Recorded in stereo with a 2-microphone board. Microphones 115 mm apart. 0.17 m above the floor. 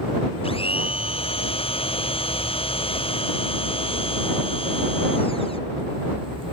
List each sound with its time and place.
0.4 s a blender: 55° left (ahead or behind)